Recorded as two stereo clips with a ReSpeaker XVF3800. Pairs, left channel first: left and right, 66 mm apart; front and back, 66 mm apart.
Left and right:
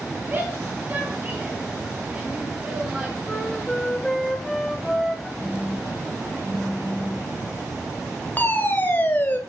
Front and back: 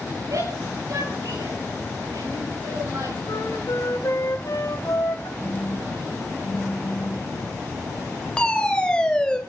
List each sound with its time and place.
0.3 s a shout: 155° right, 9 m; by 3.1 s 165° right, 9.5 m
3.2 s a flute: 10° left, 1.7 m
5.4 s a phone buzzing: 10° left, 4 m
8.4 s a fire alarm: 65° left, 2 m